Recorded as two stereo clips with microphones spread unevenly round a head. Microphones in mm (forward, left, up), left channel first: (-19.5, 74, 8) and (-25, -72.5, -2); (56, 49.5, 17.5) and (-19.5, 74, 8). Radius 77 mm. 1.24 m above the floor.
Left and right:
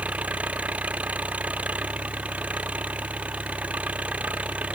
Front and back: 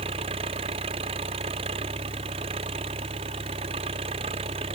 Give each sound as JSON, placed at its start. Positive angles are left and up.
{"t": 0.0, "sound": "an engine running", "azimuth_deg": -175}